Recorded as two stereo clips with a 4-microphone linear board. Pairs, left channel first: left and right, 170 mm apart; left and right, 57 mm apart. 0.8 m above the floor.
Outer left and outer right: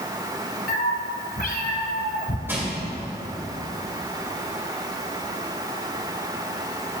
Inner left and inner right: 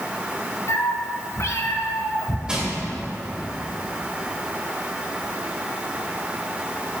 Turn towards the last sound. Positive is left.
turn(degrees=-15)  # may be behind; listen again after turning